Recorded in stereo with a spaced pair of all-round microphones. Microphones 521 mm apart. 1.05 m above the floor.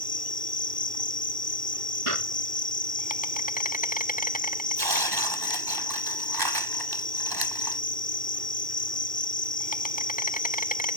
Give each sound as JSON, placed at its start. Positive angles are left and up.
{"t": 0.0, "sound": "an insect", "side_deg": 15}
{"t": 2.1, "sound": "a clap", "side_deg": -80}
{"t": 4.8, "sound": "tearing paper", "side_deg": -45}